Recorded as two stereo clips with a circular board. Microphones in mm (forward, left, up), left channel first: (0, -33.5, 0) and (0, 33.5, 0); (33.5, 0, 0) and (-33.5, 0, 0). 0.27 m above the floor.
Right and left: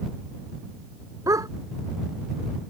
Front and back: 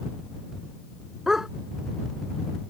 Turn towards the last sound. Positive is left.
turn(degrees=100)